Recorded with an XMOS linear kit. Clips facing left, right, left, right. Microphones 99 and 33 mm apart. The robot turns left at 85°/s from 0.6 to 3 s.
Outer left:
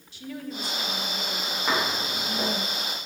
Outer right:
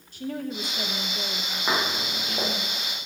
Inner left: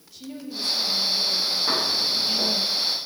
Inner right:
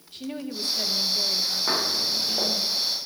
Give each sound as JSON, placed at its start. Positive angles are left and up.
{"t": 0.1, "sound": "a woman speaking", "azimuth_deg": -65, "distance_m": 1.0}
{"t": 1.7, "sound": "footsteps", "side_deg": -10, "distance_m": 4.5}